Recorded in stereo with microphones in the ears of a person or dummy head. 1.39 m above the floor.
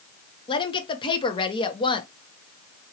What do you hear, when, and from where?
0.5 s a woman speaking: 25° left (ahead or behind), 0.8 m